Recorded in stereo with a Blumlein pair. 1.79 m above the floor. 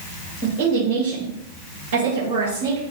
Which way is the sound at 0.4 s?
65° right.